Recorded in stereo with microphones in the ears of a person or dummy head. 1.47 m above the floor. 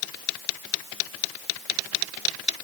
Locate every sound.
Only background noise.